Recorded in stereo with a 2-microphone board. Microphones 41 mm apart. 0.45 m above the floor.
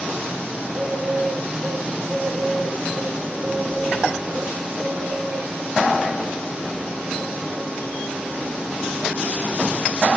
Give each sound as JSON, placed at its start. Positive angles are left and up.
{"t": 0.6, "sound": "a bird", "side_deg": -40, "distance_m": 2.5}